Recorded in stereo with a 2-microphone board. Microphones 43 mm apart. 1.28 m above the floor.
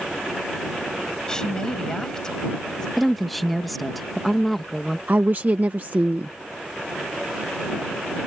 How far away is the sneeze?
I don't hear a sneeze.